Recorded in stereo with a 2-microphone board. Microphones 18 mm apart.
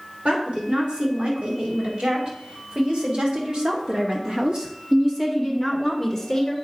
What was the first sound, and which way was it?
A woman speaking, 85° right.